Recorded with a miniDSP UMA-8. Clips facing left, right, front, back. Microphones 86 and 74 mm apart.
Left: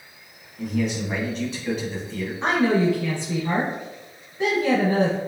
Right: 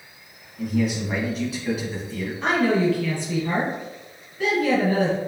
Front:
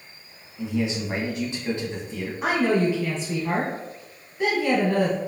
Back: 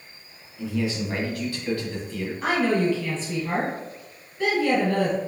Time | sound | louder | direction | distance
0.6 | a man speaking | right 1 dB, front 1 dB | 10° right | 1.1 m
2.4 | a woman speaking | even, front 1 dB | 50° left | 1.1 m